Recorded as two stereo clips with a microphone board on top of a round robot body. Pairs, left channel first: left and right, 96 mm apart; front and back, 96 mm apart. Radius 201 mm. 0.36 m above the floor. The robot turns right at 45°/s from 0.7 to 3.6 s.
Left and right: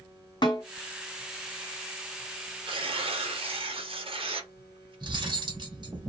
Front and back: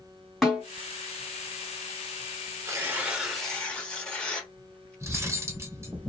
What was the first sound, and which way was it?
A snare drum, 90° left.